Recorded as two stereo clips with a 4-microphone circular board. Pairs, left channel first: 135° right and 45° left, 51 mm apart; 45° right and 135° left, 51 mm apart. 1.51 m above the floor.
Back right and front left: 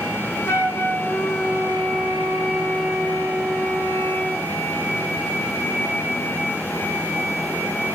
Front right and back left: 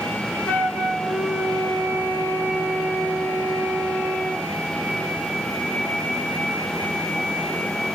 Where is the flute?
100° right, 0.8 m.